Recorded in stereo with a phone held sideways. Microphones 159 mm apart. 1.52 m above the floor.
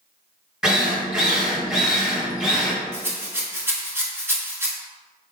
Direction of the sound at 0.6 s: 5° right (ahead or behind).